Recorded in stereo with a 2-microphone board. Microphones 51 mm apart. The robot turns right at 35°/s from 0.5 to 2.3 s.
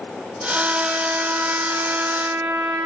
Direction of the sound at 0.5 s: 155° right.